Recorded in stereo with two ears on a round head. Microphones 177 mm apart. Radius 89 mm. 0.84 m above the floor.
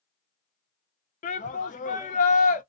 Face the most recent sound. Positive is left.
turn(degrees=40)  # may be behind; listen again after turning